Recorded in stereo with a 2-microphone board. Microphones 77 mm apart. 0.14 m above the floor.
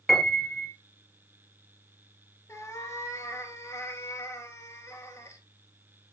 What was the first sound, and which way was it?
A piano, 5° left (ahead or behind).